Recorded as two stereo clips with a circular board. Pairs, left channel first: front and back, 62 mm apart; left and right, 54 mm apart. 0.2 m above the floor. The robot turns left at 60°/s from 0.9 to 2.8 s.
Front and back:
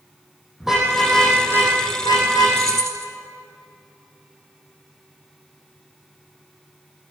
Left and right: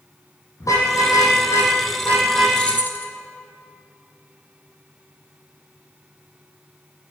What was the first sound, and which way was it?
A car horn, 95° left.